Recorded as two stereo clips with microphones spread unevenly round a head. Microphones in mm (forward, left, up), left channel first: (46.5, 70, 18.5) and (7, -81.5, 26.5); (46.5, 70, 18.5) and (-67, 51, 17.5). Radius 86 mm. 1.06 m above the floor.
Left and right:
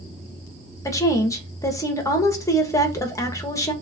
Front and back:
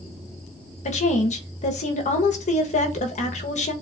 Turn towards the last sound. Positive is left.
turn(degrees=5)